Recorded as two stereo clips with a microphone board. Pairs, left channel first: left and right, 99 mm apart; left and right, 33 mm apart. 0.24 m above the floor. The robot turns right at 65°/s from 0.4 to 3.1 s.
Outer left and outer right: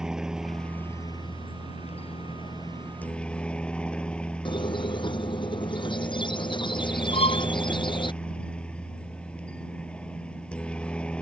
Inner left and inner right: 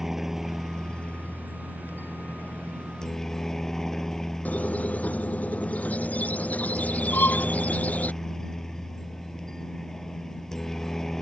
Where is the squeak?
50° left (ahead or behind).